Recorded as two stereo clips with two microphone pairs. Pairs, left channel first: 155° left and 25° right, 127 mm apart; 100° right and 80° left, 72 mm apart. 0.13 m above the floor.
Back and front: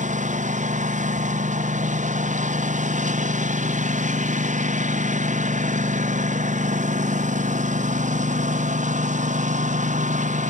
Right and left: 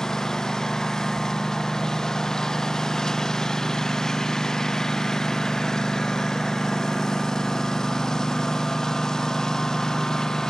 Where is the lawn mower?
15° right.